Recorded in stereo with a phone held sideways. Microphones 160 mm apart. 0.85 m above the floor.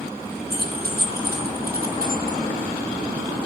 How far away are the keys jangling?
About 4.5 m.